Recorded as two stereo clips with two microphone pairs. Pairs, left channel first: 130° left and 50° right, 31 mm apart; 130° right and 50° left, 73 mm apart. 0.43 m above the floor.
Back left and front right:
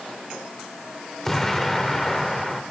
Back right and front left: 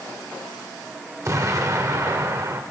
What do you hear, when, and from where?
1.2 s an explosion: 50° left, 1.0 m